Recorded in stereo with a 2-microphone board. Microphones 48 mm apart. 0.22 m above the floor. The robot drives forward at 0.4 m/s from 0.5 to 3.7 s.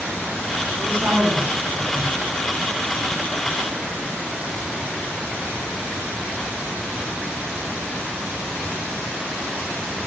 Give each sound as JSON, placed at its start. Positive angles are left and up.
{"t": 0.8, "sound": "a woman speaking", "side_deg": -60, "distance_m": 3.5}